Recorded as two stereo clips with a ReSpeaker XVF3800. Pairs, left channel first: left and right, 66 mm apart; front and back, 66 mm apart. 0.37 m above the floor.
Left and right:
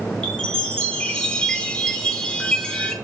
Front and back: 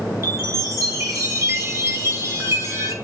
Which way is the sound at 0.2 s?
165° left.